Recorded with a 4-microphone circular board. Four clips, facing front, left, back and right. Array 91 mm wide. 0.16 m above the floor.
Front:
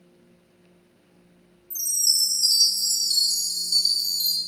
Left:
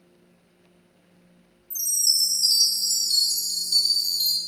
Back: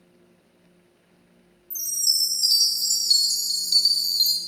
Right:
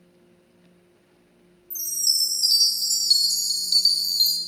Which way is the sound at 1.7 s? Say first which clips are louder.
Left 1 dB, front 1 dB; 140° right.